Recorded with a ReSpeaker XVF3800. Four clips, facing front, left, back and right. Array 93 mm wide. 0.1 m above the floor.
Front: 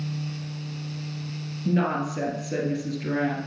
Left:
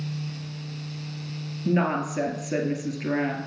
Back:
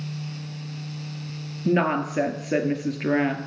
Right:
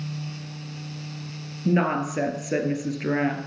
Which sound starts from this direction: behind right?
A woman speaking, at 1.6 s.